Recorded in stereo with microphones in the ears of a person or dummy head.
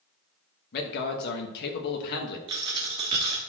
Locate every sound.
0.7 s a man speaking: 50° left (ahead or behind), 1.5 m
2.5 s a dropped coin: 20° right (ahead or behind), 1.0 m